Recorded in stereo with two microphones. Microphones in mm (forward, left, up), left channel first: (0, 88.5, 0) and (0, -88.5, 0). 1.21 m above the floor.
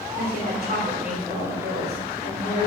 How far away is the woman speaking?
About 2.5 m.